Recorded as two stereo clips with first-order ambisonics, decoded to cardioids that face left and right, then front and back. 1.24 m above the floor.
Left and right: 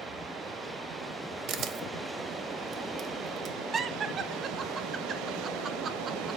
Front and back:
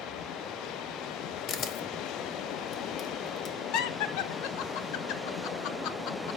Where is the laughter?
25° right, 0.6 m.